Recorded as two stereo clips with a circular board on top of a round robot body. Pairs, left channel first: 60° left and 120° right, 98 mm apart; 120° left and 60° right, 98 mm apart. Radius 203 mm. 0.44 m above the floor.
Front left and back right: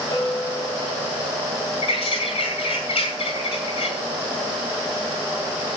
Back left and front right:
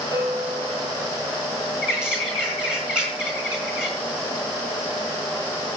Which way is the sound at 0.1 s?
Straight ahead.